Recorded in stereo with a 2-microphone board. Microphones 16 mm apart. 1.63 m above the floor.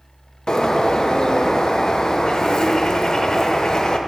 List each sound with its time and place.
0.5 s a bird: 45° left (ahead or behind), 0.7 m